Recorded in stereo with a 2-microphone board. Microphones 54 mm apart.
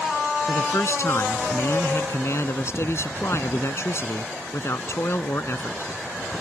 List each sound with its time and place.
0.5 s a man speaking: 60° left (ahead or behind)